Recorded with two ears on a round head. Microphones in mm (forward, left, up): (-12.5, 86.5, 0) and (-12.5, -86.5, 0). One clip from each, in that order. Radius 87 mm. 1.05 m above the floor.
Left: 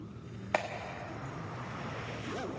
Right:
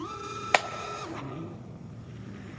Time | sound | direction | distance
0.5 | a clap | 80° right | 1.0 m